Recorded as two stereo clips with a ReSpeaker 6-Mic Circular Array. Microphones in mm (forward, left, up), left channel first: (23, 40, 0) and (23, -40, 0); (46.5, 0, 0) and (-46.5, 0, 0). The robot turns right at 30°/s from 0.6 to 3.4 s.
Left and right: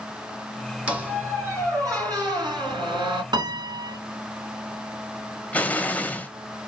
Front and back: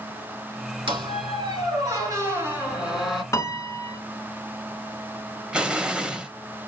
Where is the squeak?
165° right, 3 m; by 3.2 s 95° right, 3 m.